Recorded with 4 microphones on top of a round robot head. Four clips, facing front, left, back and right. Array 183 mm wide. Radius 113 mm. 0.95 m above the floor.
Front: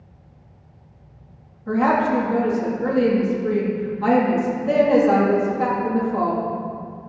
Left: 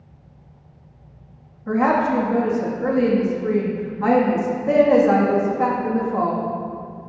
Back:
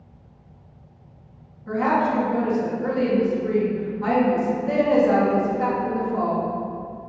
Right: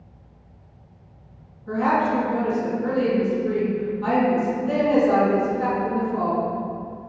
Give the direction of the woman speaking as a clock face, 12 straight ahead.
10 o'clock.